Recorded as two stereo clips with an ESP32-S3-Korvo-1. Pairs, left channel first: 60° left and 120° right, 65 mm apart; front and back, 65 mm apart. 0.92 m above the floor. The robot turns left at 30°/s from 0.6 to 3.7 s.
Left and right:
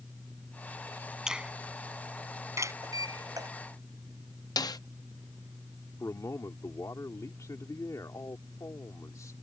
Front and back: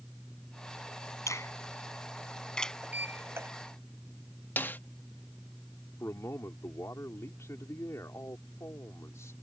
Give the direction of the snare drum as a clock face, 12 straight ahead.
10 o'clock.